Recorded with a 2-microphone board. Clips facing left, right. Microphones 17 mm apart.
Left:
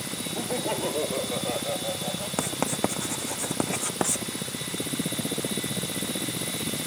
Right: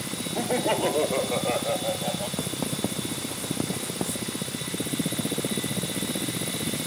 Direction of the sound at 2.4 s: 55° left (ahead or behind).